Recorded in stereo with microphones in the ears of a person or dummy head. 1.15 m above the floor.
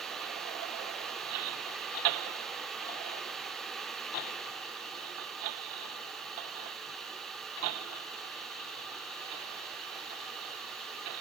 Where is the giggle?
No giggle in this recording.